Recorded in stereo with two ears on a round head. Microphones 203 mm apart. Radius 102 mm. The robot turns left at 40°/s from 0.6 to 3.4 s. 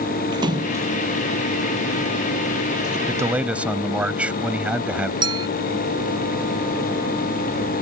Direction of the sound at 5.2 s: 25° right (ahead or behind).